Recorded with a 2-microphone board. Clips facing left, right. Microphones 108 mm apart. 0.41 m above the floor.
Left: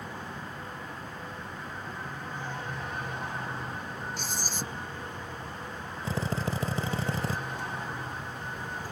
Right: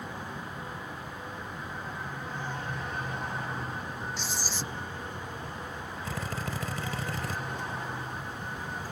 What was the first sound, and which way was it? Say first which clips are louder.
Writing: even; 50° left (ahead or behind).